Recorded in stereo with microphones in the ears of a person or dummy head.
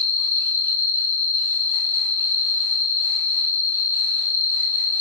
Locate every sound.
0.0 s an insect: 55° left (ahead or behind), 1.6 m